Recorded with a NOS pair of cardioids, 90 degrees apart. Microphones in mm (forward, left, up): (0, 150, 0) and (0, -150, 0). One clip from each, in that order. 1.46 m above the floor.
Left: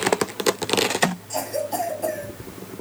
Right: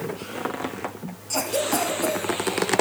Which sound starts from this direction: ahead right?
A cough, at 1.3 s.